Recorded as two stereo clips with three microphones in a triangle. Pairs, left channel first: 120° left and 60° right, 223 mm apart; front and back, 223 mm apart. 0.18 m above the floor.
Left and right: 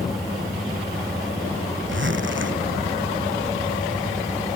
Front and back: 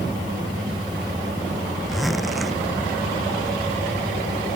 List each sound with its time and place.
1.9 s a zipper: 90° right